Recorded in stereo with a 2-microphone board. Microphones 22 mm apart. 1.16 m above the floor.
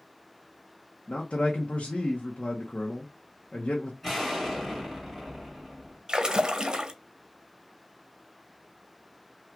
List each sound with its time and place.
1.1 s a man speaking: 70° left (ahead or behind), 0.9 m
4.0 s an explosion: centre (ahead or behind), 2 m
6.1 s a splash: 30° right (ahead or behind), 0.8 m